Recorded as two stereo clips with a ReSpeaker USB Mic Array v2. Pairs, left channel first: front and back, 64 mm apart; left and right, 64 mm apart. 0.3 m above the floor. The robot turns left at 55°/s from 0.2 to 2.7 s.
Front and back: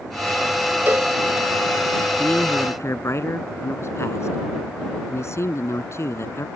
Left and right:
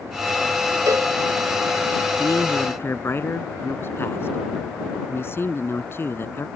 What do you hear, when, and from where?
0.9 s a cowbell: 125° right; by 1.1 s 140° right
2.2 s a man speaking: 70° left; by 6.5 s 40° left